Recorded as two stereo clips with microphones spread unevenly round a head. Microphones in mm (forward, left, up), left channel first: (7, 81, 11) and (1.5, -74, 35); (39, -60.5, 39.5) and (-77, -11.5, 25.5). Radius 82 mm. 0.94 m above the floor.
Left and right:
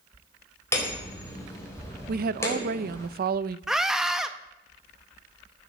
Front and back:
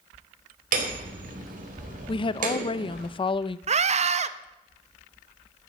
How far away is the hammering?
About 4 m.